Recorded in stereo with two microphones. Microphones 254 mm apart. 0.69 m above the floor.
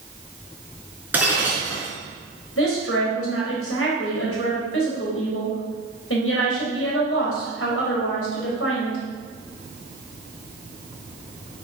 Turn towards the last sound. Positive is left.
turn(degrees=60)  # may be behind; listen again after turning